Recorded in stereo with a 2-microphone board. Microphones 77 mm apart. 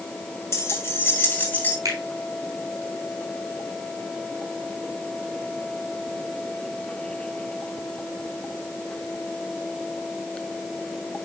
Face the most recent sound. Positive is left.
turn(degrees=-50)  # may be behind; listen again after turning